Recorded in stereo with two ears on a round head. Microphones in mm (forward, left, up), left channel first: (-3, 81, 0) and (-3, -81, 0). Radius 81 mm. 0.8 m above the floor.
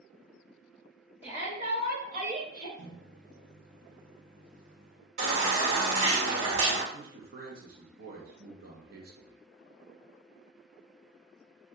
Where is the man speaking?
55° right (ahead or behind), 0.9 m.